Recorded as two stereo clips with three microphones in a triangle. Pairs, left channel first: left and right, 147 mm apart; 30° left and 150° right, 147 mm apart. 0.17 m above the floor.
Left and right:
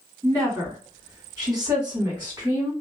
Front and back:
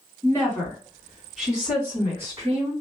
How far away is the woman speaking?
About 2.0 m.